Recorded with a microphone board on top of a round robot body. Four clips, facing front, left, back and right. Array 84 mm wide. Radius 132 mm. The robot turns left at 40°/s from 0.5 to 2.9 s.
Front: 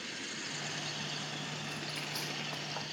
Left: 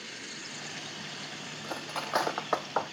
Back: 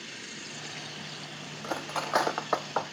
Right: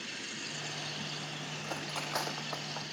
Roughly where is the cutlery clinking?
Behind.